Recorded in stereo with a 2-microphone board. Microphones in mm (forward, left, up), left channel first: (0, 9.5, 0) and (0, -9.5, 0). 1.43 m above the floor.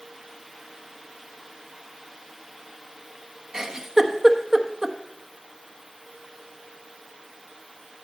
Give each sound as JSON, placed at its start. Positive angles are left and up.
{"t": 3.5, "sound": "a giggle", "side_deg": -25, "distance_m": 0.9}